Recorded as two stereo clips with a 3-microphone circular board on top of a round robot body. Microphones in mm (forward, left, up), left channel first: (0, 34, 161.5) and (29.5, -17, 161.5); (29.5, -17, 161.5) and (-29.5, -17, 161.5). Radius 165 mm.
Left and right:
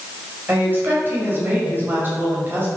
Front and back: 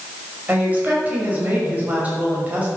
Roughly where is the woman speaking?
Behind right.